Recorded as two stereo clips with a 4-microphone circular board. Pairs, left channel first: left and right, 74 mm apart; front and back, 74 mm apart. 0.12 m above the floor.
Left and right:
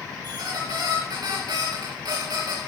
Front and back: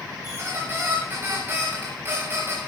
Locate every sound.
0.2 s a squeak: 120° right, 5 m